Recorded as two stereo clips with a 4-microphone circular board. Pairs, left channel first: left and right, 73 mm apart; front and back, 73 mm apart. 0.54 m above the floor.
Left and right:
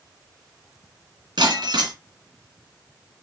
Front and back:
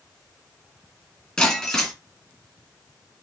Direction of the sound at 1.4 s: 85° right.